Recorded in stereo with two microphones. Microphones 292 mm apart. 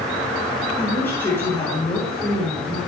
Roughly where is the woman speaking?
Centre.